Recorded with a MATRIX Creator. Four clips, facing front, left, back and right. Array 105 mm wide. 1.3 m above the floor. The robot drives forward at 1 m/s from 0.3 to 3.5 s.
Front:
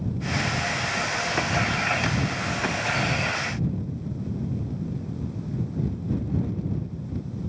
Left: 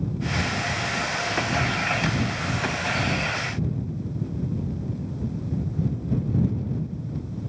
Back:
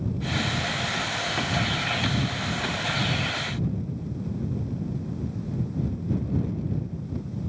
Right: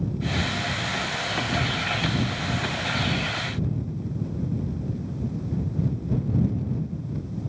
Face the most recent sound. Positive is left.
No sound to turn to.